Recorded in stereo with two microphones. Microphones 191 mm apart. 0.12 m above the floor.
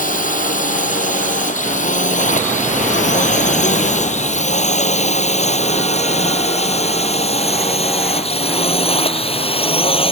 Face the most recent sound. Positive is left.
turn(degrees=30)  # may be behind; listen again after turning